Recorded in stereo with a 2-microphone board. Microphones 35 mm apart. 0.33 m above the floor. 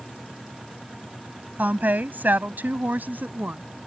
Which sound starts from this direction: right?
A woman speaking, at 1.6 s.